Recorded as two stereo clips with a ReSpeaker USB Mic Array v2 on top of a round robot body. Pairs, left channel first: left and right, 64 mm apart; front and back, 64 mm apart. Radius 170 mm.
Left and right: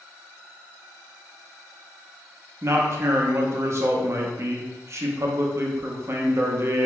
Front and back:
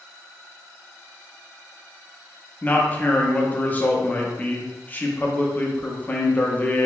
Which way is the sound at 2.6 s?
60° right.